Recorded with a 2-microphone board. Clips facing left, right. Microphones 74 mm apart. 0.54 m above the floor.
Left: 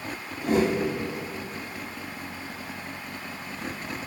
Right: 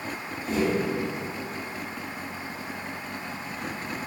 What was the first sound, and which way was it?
A whoosh, 65° left (ahead or behind).